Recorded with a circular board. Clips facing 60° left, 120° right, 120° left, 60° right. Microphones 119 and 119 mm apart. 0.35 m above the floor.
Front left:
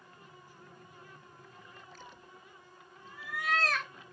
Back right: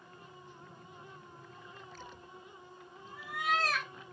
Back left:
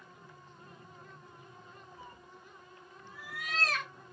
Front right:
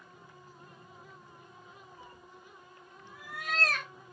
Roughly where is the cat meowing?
Behind right.